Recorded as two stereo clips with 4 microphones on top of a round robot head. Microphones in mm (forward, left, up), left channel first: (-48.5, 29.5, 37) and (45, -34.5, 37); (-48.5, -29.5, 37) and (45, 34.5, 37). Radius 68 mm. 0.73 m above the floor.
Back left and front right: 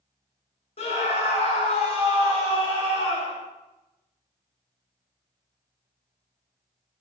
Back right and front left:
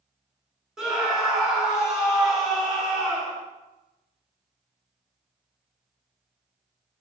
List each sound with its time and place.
0.8 s a scream: 120° left, 2 m